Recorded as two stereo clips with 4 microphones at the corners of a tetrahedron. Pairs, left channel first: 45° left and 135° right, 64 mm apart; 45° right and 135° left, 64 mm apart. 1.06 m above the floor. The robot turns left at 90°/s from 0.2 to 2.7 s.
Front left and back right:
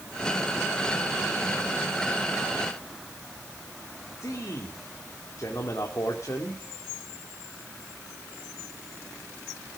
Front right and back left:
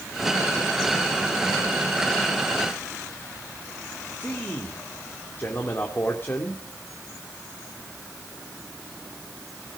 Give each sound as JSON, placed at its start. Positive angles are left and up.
{"t": 4.2, "sound": "a man speaking", "azimuth_deg": 10, "distance_m": 2.0}